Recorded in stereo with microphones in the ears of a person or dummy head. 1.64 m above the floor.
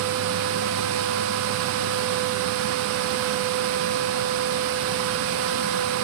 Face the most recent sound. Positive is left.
No sound to turn to.